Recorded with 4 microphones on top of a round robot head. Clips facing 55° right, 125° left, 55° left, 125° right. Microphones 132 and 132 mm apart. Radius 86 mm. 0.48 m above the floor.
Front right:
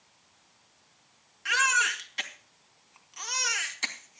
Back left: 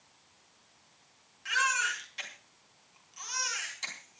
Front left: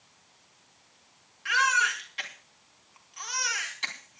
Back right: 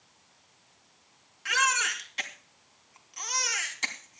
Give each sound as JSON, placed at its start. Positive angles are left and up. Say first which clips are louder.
{"t": 1.4, "sound": "a baby crying", "louder": "front right 4 dB, front left 2 dB", "azimuth_deg": -80, "distance_m": 3.0}